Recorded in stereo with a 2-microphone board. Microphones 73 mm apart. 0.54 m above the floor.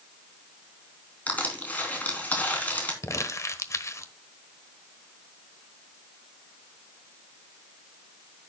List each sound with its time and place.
1.3 s crushing: 25° left (ahead or behind), 3 m
3.0 s crumpling: 45° left (ahead or behind), 1.1 m